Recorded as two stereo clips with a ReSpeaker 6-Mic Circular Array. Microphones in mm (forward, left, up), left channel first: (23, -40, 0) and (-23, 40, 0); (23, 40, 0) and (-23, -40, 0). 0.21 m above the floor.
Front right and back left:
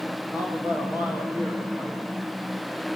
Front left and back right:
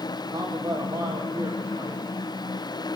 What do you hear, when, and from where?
0.3 s a man speaking: 170° right, 9.5 m